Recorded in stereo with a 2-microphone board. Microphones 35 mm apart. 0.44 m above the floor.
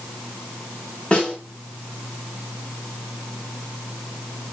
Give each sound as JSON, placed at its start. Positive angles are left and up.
{"t": 1.1, "sound": "a snare drum", "side_deg": 30, "distance_m": 1.0}